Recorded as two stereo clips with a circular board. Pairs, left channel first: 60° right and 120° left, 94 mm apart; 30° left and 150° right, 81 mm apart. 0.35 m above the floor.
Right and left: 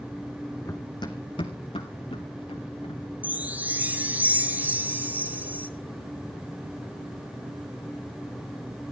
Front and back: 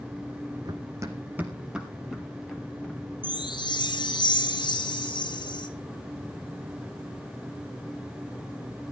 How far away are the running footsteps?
About 1.3 m.